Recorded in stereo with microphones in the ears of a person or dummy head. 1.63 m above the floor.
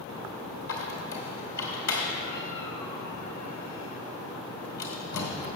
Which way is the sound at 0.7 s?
50° left (ahead or behind).